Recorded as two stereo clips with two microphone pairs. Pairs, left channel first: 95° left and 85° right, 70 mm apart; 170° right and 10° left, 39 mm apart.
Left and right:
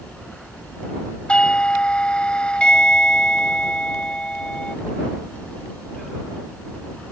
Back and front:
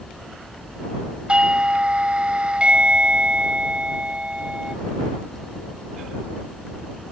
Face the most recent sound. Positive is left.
turn(degrees=30)